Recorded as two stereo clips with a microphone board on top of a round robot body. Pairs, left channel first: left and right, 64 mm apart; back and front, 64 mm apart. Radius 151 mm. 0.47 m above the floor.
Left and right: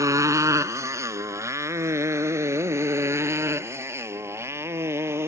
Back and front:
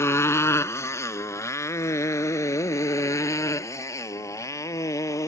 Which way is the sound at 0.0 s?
130° right.